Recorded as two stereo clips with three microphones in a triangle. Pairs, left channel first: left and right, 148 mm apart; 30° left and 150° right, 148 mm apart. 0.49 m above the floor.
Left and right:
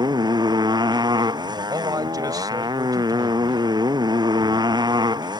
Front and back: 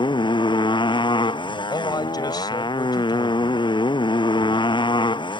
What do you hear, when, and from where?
0.0 s a motorcycle: 30° right
1.7 s a man speaking: 30° right